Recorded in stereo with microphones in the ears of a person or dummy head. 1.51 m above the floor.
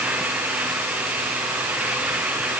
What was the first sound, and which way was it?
Only background noise.